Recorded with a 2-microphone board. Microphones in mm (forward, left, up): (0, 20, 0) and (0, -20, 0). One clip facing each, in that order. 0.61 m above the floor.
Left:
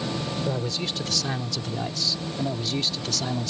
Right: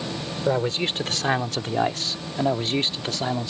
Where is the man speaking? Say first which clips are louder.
Right 5 dB; 35° right (ahead or behind); by 3.5 s 25° right (ahead or behind).